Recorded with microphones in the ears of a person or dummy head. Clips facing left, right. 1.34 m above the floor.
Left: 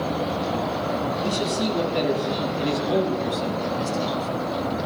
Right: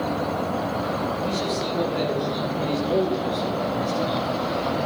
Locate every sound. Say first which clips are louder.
1.2 s a man speaking: left 1 dB; 85° left, 7.5 m; by 4.4 s 65° left (ahead or behind), 6.5 m